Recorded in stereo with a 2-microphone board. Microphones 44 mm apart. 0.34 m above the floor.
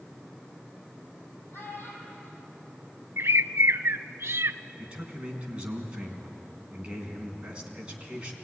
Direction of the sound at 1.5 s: 45° left (ahead or behind).